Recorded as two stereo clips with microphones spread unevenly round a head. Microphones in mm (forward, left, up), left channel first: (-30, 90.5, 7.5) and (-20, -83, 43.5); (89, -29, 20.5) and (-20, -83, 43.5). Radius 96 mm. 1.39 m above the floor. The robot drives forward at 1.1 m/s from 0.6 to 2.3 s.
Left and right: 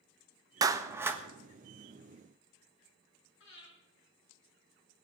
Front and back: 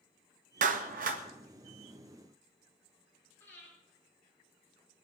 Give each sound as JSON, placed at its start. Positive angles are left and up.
{"t": 0.6, "sound": "a clap", "azimuth_deg": -155, "distance_m": 1.0}
{"t": 3.4, "sound": "breathing", "azimuth_deg": 105, "distance_m": 6.0}